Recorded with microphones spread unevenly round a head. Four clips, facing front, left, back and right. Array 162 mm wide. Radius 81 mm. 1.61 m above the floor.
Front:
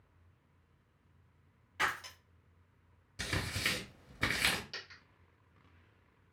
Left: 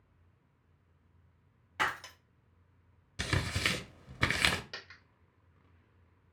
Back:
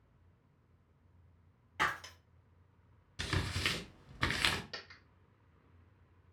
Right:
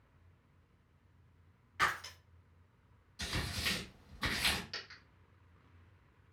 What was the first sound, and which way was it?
Breaking glass, 120° left.